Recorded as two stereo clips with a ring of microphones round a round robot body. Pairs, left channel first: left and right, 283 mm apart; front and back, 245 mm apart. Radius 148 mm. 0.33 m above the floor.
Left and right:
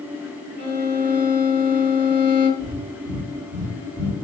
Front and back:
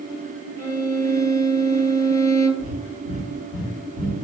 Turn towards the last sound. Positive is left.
turn(degrees=15)